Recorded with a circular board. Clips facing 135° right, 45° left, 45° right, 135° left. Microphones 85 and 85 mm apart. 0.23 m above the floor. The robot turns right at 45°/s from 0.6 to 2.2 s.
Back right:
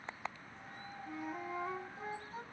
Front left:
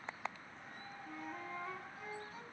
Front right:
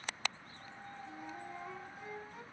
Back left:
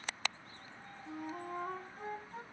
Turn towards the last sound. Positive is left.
turn(degrees=-175)